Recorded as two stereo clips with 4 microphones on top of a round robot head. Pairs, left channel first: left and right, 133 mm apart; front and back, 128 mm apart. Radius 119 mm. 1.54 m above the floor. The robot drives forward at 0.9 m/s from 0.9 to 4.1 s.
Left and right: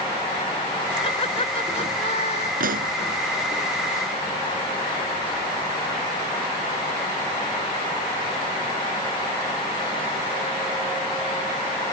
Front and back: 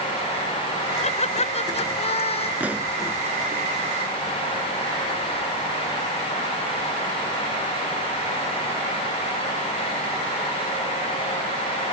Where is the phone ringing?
I don't hear a phone ringing.